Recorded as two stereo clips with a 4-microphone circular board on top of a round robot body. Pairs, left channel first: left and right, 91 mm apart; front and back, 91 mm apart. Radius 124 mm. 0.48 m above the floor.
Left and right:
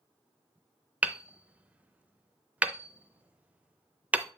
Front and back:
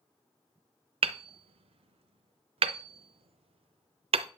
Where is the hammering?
165° right, 0.6 m.